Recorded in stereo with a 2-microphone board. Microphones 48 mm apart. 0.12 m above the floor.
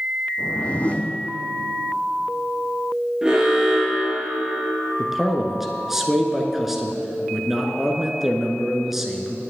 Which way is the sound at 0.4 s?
25° left (ahead or behind).